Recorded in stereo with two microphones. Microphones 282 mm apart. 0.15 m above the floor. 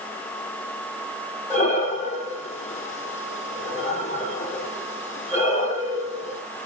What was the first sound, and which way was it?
Breathing, 25° left (ahead or behind).